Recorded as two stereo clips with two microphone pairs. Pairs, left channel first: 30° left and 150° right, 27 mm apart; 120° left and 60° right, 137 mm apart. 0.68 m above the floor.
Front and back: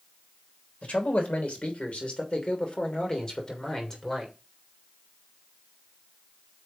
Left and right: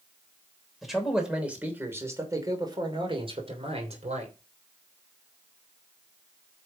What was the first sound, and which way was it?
A man speaking, 30° left.